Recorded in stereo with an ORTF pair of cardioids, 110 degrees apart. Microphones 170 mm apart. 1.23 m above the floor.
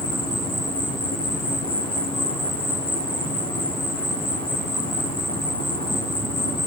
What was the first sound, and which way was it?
An insect, 55° left.